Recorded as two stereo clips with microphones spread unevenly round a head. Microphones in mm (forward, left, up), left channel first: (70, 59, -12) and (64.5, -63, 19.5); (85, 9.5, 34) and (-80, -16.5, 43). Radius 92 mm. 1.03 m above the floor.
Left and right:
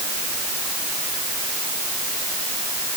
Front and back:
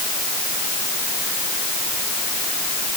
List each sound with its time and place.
Only background noise.